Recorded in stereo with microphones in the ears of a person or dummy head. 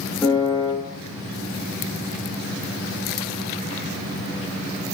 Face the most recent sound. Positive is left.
turn(degrees=10)  # may be behind; listen again after turning